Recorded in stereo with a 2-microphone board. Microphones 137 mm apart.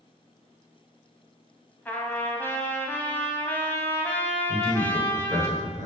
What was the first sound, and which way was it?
A trumpet, 15° left (ahead or behind).